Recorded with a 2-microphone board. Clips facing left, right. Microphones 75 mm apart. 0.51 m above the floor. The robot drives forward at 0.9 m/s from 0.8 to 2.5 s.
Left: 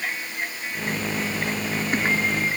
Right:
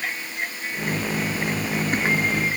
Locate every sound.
Only background noise.